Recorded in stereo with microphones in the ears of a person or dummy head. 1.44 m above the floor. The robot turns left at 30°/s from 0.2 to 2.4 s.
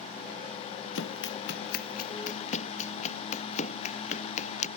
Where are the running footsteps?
80° left; by 4.7 s 50° left (ahead or behind).